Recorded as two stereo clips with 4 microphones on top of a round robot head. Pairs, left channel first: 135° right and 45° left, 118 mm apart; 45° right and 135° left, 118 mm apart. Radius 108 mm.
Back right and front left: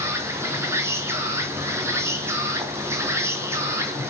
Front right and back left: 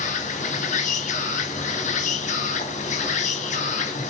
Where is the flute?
I don't hear a flute.